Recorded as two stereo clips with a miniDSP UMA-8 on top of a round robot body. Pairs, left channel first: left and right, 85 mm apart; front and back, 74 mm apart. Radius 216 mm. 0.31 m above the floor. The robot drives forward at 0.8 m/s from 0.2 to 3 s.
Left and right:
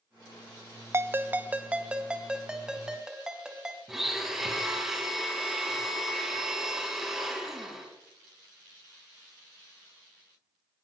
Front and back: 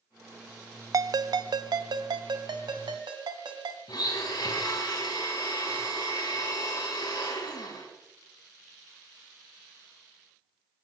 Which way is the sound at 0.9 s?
145° right.